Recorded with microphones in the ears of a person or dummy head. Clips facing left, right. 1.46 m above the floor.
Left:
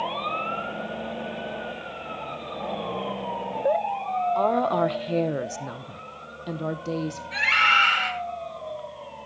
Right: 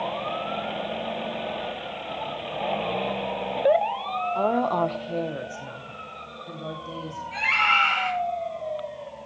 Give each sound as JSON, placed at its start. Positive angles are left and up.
{"t": 4.3, "sound": "a woman speaking", "side_deg": -10, "distance_m": 0.7}
{"t": 7.3, "sound": "a scream", "side_deg": 20, "distance_m": 5.0}